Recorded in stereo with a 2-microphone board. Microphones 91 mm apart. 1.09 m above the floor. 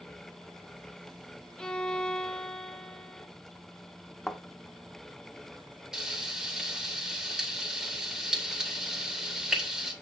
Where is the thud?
Centre (ahead or behind), 0.9 m.